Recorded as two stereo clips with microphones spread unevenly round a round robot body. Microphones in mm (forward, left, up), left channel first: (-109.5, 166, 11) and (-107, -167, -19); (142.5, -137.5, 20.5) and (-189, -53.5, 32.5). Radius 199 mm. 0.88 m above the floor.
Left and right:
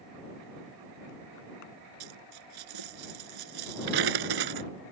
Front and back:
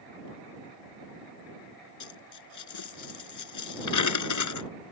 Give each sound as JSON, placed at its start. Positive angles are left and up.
{"t": 2.0, "sound": "a dropped coin", "azimuth_deg": -50}